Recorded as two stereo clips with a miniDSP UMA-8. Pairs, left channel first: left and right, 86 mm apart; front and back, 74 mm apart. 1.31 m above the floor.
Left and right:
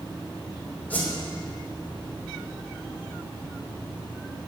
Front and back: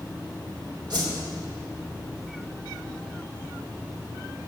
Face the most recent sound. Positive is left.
turn(degrees=160)